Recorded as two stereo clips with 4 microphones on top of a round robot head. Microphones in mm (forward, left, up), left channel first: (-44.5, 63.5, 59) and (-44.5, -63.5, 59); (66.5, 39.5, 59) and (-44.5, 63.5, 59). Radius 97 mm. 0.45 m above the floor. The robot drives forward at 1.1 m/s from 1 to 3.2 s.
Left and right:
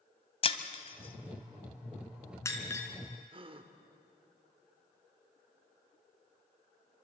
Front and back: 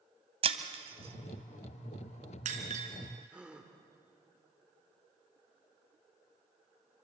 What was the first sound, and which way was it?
Breaking glass, 135° left.